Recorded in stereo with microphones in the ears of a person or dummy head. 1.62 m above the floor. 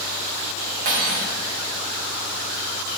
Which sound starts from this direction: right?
Cutlery clinking, at 0.8 s.